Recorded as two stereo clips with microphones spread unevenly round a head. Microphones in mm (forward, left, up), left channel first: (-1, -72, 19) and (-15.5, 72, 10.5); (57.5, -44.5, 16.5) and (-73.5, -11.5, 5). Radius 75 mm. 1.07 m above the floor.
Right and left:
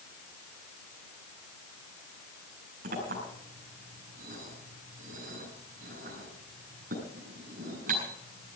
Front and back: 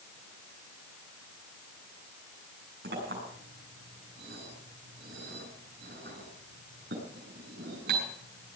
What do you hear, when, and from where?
2.8 s a clink: 135° left, 7 m